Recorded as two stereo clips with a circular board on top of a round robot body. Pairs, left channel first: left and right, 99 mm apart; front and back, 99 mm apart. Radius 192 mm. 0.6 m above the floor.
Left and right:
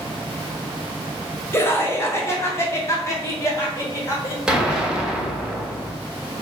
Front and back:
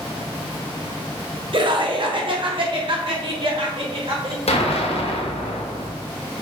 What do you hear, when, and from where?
1.5 s laughter: 155° left, 1.9 m; by 4.4 s 150° left, 3.5 m
4.5 s an explosion: 5° right, 1.5 m